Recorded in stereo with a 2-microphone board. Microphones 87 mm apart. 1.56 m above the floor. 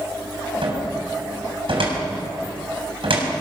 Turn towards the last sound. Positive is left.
turn(degrees=-85)